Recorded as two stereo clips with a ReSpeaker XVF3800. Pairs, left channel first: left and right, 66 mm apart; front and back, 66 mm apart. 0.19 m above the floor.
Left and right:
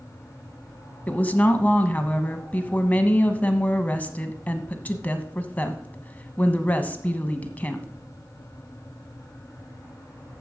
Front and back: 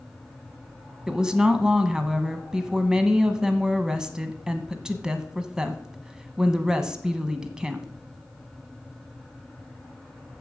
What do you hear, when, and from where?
1.1 s a woman speaking: 115° left, 1.2 m